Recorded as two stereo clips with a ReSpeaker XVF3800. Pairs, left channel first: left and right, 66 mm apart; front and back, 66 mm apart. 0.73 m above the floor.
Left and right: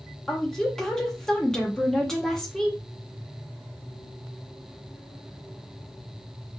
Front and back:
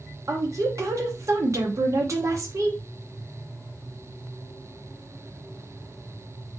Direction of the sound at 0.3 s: 170° left.